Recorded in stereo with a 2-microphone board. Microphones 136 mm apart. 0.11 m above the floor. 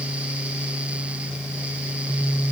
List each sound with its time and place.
Only background noise.